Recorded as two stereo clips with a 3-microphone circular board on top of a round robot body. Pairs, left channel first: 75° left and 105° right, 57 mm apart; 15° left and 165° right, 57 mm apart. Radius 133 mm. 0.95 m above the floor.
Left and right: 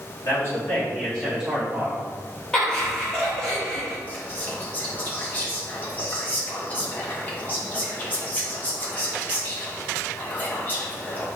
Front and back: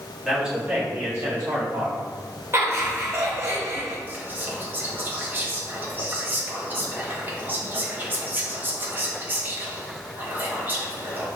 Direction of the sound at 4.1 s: 135° left.